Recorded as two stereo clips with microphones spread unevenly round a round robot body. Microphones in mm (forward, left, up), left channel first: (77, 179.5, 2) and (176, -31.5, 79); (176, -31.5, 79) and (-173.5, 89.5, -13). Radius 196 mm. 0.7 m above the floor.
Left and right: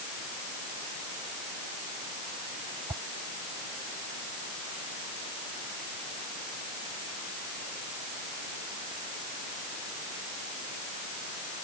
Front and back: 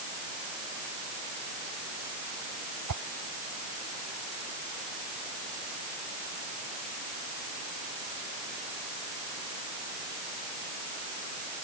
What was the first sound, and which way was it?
A whoosh, 145° right.